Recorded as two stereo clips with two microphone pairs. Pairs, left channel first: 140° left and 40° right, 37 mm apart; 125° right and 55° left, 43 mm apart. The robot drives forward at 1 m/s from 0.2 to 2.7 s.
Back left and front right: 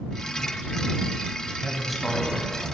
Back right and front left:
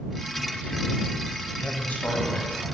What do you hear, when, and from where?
1.6 s a man speaking: 110° right, 1.3 m; by 2.7 s 150° right, 1.9 m